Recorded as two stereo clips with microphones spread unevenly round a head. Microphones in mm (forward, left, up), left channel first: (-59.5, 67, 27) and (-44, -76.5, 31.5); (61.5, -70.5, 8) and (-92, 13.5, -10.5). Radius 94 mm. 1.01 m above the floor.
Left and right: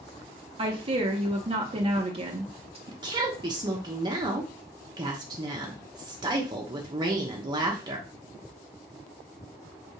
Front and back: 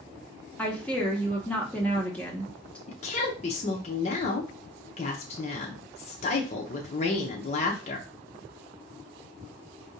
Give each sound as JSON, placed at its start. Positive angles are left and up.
{"t": 0.6, "sound": "a woman speaking", "azimuth_deg": -115, "distance_m": 0.8}
{"t": 2.9, "sound": "a woman speaking", "azimuth_deg": -50, "distance_m": 0.8}